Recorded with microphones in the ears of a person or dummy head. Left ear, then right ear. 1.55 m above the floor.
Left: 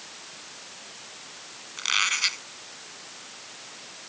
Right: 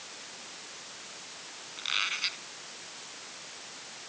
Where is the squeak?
40° left (ahead or behind).